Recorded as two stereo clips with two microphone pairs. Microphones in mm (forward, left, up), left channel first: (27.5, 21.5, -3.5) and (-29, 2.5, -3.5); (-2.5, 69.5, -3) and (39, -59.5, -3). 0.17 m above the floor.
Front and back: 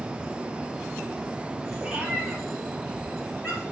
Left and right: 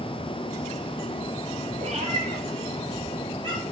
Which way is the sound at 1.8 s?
90° right.